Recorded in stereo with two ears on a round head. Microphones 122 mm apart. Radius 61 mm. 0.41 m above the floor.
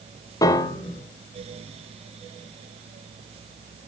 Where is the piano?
25° left (ahead or behind), 0.6 m.